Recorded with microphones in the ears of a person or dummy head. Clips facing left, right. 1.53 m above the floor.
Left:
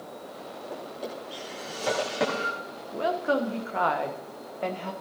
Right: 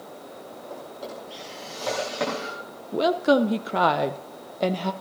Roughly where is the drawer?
Centre.